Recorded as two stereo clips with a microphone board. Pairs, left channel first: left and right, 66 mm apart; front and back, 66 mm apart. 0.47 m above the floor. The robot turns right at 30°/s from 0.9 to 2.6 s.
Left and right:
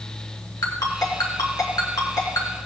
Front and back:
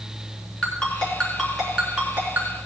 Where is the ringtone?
70° left, 3 m; by 2.6 s 120° left, 3 m.